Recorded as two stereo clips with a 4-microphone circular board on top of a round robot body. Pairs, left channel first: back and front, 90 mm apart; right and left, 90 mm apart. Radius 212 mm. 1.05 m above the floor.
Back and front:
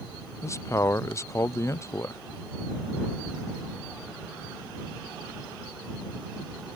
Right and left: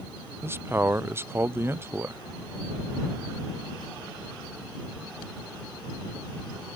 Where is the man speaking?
140° left.